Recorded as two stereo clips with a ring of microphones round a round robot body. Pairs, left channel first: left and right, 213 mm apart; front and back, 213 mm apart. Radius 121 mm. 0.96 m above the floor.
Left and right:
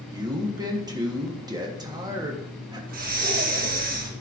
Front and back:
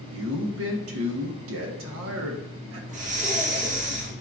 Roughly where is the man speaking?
Behind.